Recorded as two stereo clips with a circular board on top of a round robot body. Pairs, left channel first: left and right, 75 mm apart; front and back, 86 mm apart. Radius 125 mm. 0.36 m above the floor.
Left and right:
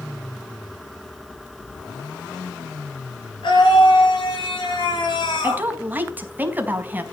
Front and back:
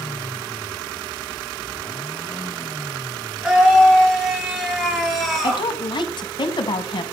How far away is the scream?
About 8.5 m.